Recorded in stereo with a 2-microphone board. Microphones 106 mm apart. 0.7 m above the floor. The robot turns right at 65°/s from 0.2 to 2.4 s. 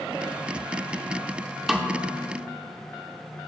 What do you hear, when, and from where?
1.7 s a snare drum: 5° right (ahead or behind), 0.8 m; by 2.0 s 30° right (ahead or behind), 0.8 m